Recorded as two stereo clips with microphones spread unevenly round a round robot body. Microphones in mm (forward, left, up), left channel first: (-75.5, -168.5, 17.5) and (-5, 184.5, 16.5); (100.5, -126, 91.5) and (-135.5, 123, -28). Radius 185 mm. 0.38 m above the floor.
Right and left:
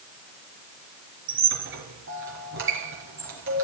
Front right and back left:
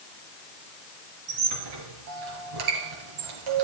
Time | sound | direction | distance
1.3 | a squeak | 135° left | 5.5 m